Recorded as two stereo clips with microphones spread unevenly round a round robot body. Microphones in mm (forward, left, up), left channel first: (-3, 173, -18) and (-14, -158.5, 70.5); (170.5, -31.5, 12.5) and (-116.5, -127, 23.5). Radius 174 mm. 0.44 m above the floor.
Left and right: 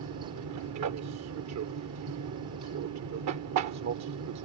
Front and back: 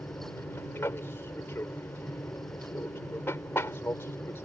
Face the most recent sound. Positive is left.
turn(degrees=-60)